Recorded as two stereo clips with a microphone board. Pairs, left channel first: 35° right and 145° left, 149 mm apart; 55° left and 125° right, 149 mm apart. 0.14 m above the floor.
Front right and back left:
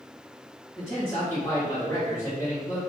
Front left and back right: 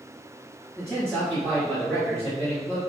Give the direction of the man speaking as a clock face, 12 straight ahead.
12 o'clock.